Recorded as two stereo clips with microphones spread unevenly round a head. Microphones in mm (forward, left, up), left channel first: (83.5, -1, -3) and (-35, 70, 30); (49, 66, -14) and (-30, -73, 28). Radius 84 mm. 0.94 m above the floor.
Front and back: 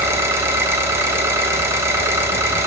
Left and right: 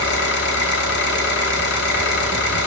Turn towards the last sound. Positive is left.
turn(degrees=80)